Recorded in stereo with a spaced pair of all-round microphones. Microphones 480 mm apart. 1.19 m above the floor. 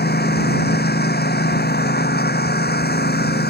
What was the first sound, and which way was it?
A lawn mower, 20° left (ahead or behind).